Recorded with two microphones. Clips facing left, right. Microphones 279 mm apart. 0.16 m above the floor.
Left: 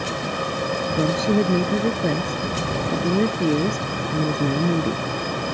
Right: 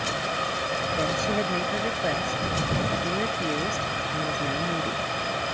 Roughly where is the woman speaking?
Left.